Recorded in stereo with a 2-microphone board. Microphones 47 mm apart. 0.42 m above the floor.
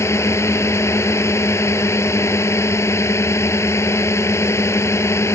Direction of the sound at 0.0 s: 80° left.